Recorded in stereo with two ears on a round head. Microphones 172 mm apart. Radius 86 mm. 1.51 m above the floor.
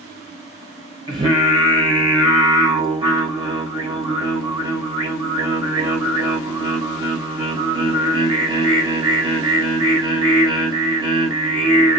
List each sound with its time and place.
1.1 s singing: 25° right (ahead or behind), 1.2 m